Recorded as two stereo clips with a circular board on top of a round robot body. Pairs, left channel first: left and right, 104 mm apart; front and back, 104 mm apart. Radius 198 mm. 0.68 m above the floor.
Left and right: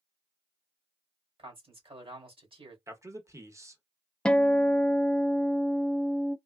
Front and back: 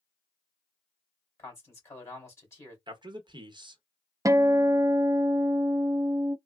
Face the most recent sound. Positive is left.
turn(degrees=160)